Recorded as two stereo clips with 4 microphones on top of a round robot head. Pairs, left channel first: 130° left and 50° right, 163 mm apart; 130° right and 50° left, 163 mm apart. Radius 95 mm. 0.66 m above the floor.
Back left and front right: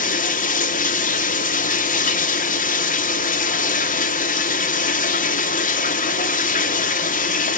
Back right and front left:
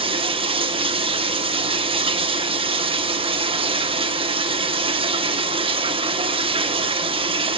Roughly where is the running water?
Left.